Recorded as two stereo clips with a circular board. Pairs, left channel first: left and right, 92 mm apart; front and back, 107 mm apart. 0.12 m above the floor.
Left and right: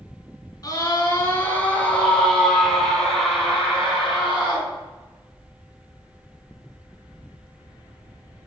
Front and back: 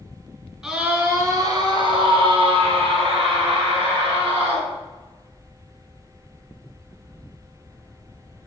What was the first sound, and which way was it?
A scream, 100° left.